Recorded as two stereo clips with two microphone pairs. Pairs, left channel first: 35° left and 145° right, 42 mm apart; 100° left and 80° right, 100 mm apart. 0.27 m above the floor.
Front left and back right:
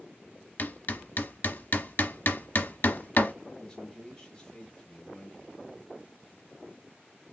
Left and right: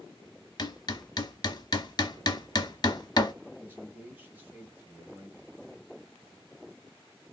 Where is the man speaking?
25° right, 1.2 m.